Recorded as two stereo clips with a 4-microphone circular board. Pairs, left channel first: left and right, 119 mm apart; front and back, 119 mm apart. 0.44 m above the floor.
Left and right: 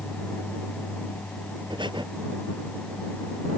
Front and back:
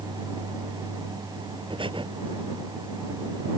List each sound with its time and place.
1.7 s breathing: 140° right